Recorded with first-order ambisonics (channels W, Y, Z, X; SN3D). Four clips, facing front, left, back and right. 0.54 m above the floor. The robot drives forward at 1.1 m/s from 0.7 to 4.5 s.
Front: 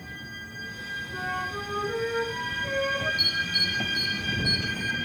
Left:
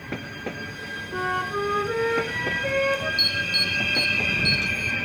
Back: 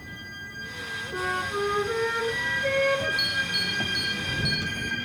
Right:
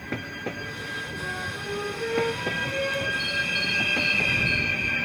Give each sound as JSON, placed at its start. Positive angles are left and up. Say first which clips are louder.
{"t": 1.1, "sound": "a flute", "louder": "left 6 dB, back 4 dB", "azimuth_deg": 110, "distance_m": 2.0}
{"t": 3.2, "sound": "an alarm", "louder": "left 3 dB, front 1 dB", "azimuth_deg": 100, "distance_m": 4.0}